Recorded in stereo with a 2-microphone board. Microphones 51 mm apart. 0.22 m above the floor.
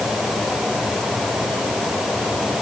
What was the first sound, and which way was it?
Only background noise.